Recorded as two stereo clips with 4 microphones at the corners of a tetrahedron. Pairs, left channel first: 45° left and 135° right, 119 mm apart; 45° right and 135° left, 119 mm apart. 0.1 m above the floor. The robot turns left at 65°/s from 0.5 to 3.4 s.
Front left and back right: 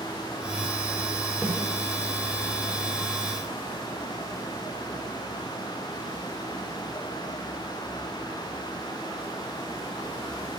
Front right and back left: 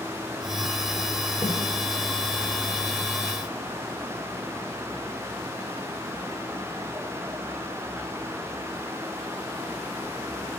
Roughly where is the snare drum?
Ahead right.